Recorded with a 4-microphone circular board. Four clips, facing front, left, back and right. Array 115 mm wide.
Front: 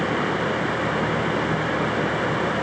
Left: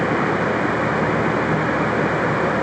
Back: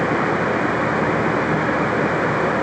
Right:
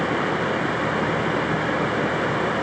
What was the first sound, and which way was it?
Only background noise.